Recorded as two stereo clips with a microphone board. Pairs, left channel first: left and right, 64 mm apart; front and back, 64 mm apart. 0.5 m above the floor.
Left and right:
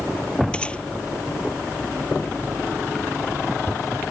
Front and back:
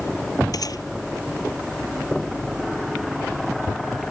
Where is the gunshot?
15° left.